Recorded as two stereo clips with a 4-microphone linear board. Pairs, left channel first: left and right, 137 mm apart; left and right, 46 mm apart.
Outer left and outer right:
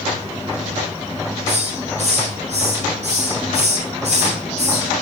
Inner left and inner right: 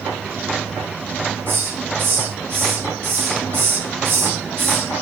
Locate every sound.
1.5 s a hiss: 55° right (ahead or behind), 6.5 m